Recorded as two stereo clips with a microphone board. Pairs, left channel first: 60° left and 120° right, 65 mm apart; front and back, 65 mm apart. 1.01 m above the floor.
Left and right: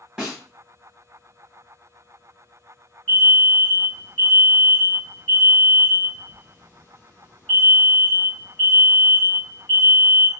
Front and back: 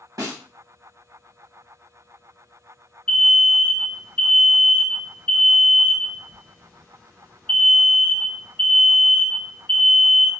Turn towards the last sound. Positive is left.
turn(degrees=50)